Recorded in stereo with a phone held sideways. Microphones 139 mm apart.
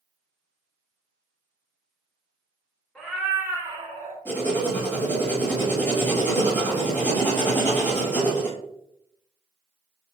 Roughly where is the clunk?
No clunk in this recording.